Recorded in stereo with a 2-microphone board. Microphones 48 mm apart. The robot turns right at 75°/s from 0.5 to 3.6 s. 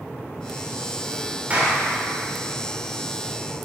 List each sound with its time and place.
1.5 s a clap: 25° right (ahead or behind), 2 m; by 1.8 s 5° right (ahead or behind), 2 m